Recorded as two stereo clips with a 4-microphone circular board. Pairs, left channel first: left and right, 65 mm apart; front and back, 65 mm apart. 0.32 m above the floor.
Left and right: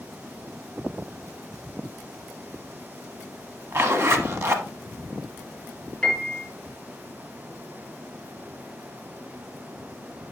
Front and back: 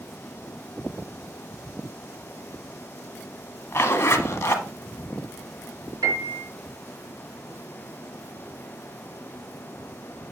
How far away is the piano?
About 3.5 m.